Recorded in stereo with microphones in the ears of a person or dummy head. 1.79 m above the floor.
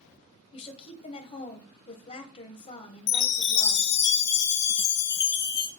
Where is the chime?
60° left (ahead or behind), 0.6 m.